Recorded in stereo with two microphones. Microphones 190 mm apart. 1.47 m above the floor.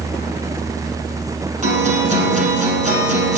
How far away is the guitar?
About 7.5 m.